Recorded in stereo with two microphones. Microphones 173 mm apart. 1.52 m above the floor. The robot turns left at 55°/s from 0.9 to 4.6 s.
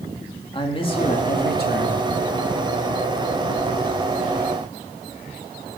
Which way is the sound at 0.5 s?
150° left.